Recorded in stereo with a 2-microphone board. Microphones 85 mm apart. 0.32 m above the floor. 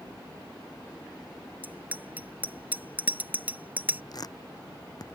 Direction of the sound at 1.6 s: 20° right (ahead or behind).